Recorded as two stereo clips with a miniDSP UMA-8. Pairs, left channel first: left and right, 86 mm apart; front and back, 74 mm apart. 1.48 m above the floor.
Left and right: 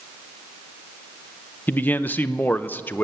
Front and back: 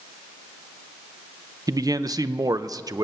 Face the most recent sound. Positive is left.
turn(degrees=155)